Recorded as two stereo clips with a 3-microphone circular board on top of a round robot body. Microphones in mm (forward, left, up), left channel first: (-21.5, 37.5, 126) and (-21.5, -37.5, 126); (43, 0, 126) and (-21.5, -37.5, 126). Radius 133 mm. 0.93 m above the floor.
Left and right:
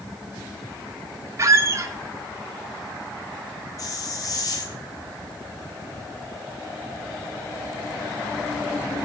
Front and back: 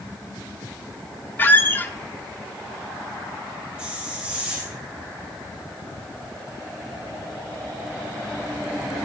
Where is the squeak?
35° right, 0.7 m.